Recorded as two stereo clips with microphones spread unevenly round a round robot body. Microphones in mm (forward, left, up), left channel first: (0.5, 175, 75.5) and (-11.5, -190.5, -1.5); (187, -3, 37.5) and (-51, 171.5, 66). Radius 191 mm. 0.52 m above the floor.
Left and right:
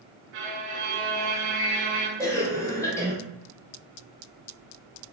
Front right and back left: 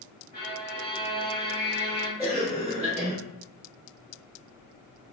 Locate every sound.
0.3 s a violin: 105° right, 0.7 m
2.2 s a cough: 170° right, 1.0 m